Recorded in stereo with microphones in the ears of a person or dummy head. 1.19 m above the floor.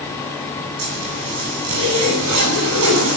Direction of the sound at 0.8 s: 85° right.